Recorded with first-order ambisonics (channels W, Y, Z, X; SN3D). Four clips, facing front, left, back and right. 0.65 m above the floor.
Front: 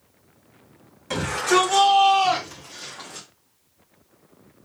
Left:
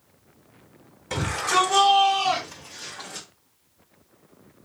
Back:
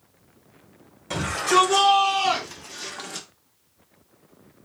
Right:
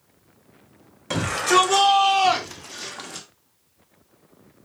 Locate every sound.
1.1 s a shout: 85° right, 2.5 m; by 3.3 s 170° right, 0.8 m